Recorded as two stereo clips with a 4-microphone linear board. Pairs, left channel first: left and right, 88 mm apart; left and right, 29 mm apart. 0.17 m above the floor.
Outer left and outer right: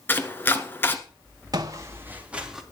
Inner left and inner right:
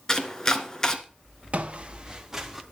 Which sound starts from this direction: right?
Footsteps, at 1.5 s.